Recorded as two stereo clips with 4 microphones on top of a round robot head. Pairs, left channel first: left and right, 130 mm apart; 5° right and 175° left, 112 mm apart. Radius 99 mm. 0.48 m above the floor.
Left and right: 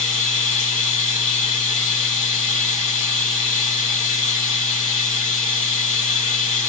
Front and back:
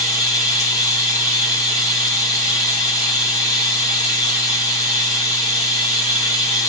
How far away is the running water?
About 3 m.